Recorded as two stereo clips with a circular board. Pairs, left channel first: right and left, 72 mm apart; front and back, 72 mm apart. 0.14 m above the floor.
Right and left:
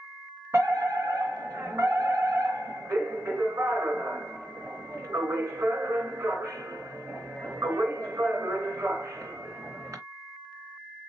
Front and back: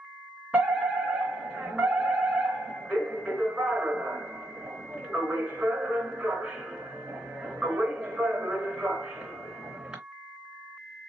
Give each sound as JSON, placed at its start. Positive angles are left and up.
{"t": 0.5, "sound": "a fire alarm", "azimuth_deg": 110, "distance_m": 3.5}